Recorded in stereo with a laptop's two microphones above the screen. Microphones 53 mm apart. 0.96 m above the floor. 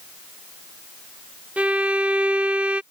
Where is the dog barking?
I don't hear a dog barking.